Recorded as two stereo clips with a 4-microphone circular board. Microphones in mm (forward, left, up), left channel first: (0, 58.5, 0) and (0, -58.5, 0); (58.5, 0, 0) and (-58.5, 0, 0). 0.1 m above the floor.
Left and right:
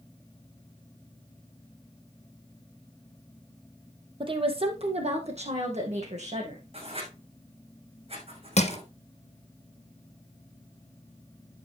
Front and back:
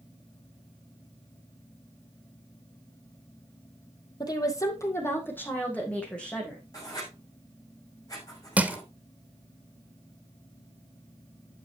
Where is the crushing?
100° left, 1.4 m.